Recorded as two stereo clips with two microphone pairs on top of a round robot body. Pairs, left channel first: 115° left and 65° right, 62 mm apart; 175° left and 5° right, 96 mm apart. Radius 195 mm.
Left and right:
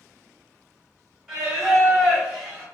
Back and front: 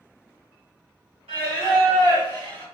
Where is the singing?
25° left, 1.3 m.